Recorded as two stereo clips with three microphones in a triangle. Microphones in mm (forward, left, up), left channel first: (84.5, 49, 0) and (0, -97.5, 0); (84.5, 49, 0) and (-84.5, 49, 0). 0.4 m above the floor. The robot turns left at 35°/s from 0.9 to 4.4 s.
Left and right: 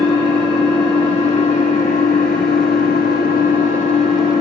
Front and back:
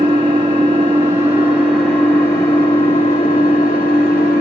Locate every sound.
0.0 s an engine running: 125° left, 2.5 m; by 4.4 s straight ahead, 2.5 m